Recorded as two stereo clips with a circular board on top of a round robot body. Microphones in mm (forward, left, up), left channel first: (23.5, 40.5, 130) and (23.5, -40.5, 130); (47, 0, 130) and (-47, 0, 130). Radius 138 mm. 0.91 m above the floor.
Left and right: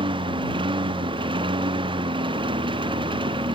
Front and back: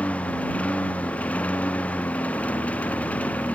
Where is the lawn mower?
75° right.